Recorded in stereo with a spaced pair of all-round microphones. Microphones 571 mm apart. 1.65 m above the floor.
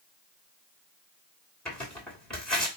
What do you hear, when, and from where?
1.6 s tearing paper: centre (ahead or behind), 1.4 m